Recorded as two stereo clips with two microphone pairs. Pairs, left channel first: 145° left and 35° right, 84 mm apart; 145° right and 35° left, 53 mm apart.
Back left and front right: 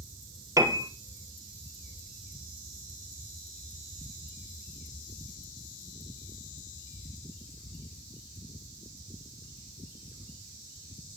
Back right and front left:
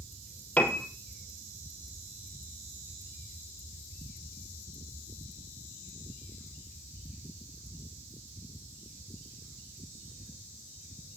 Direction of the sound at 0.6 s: 85° right.